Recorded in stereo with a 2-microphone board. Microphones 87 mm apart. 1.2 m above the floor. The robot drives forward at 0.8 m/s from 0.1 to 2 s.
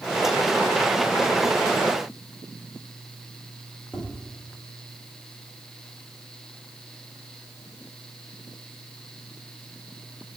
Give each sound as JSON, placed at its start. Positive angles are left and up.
{"t": 3.9, "sound": "tapping", "side_deg": 15, "distance_m": 3.0}